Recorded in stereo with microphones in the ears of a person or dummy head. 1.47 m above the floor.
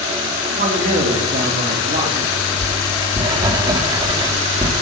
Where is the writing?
25° right (ahead or behind), 2 m.